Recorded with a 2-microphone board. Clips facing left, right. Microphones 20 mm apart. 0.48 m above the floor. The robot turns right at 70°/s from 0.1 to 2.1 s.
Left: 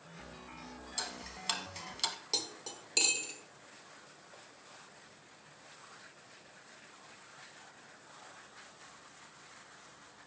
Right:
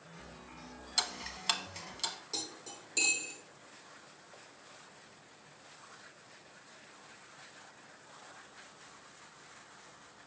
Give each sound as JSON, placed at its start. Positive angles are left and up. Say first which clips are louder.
{"t": 1.0, "sound": "ticking", "louder": "right 7 dB", "side_deg": -50, "distance_m": 0.5}
{"t": 2.3, "sound": "cutlery clinking", "louder": "left 4 dB", "side_deg": 40, "distance_m": 0.8}